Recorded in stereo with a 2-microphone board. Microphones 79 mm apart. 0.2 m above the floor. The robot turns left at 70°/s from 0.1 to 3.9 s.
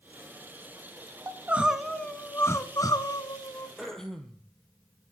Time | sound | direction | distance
1.3 | crying | 140° right | 0.9 m
3.8 | throat clearing | 5° right (ahead or behind) | 1.6 m